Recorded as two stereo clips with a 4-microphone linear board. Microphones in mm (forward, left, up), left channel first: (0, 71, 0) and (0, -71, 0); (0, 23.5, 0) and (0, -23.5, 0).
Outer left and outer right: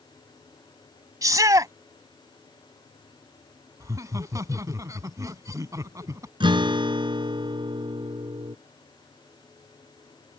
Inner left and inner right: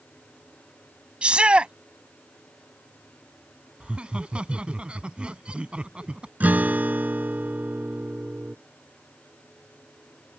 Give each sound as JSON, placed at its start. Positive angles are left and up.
{"t": 1.2, "sound": "a shout", "side_deg": -25}
{"t": 3.8, "sound": "laughter", "side_deg": -25}
{"t": 6.4, "sound": "a guitar", "side_deg": -35}